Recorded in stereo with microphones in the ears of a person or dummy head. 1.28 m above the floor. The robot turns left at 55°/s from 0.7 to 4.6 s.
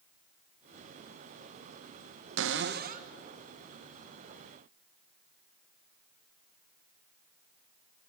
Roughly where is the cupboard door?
Right.